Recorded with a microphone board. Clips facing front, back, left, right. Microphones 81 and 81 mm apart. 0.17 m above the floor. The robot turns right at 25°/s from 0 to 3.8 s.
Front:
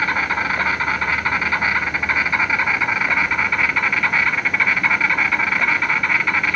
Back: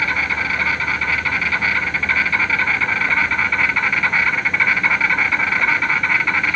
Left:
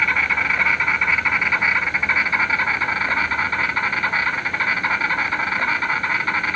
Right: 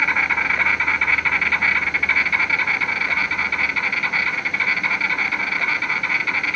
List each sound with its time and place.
0.0 s an insect: 5° right, 0.9 m; by 6.6 s 90° left, 0.9 m